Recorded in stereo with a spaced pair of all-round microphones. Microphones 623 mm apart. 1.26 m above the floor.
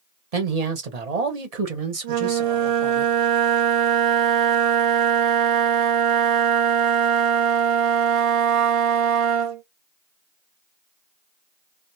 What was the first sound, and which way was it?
A man speaking, 70° right (ahead or behind).